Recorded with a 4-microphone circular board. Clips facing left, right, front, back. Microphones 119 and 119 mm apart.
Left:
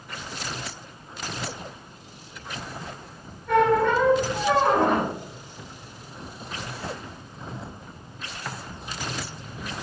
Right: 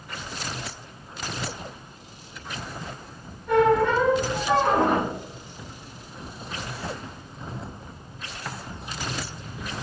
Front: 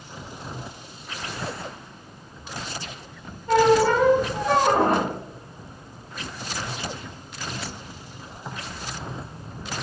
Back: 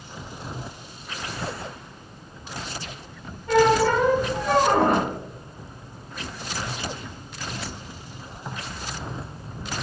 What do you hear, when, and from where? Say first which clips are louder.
3.5 s a squeak: even, front 1 dB; 170° right, 1.5 m